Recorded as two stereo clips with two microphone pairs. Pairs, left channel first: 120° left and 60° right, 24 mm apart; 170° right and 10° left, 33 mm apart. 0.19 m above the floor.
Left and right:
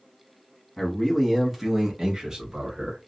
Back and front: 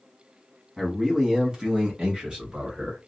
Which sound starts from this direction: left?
A man speaking, at 0.8 s.